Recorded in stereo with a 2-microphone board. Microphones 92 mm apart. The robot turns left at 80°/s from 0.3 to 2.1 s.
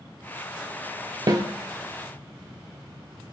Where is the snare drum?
50° right (ahead or behind), 0.5 m; by 1.4 s 40° right (ahead or behind), 0.5 m.